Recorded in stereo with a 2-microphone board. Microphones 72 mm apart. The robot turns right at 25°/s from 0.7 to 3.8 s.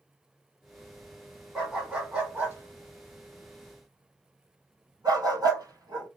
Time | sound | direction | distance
1.6 | a dog barking | centre (ahead or behind) | 1.4 m